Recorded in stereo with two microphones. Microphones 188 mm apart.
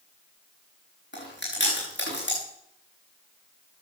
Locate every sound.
1.1 s chewing: 75° left (ahead or behind), 6 m